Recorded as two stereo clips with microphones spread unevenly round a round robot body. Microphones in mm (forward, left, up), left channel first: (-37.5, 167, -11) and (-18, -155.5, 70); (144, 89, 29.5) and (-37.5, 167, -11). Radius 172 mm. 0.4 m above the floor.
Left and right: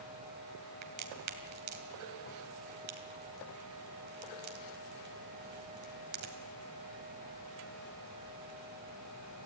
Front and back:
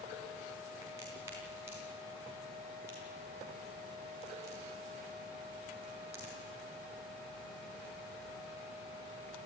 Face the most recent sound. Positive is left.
turn(degrees=-125)